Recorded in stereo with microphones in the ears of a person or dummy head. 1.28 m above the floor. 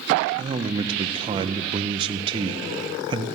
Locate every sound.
0.4 s a man speaking: 30° right (ahead or behind), 0.6 m